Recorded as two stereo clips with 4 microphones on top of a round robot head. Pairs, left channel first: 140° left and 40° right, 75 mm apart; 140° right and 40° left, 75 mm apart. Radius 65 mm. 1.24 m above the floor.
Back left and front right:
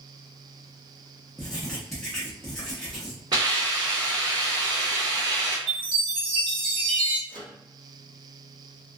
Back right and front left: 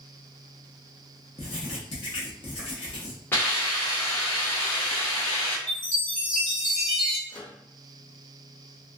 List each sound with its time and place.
1.4 s writing: 135° right, 0.7 m
3.3 s a hiss: 75° right, 1.2 m
5.7 s a chime: 60° right, 1.7 m
7.3 s a microwave: 60° right, 0.8 m